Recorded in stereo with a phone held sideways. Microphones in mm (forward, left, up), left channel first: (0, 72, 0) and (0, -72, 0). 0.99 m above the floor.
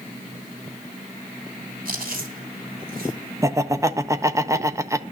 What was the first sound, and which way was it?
Chewing, 75° right (ahead or behind).